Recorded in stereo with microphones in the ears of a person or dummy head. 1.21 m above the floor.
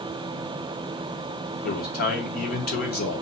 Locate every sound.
1.6 s a man speaking: 45° left (ahead or behind), 0.9 m